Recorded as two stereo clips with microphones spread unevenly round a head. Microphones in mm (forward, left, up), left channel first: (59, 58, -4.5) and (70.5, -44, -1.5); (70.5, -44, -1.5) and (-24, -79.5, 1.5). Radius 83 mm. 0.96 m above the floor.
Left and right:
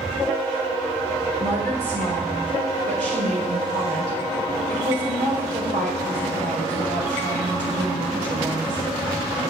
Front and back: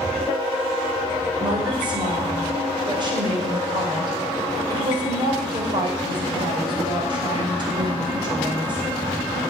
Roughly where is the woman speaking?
Behind right.